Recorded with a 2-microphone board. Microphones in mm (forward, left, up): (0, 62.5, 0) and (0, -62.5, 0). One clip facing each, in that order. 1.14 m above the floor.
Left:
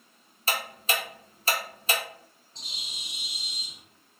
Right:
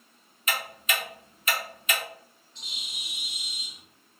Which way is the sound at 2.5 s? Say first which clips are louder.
Even; 35° left (ahead or behind).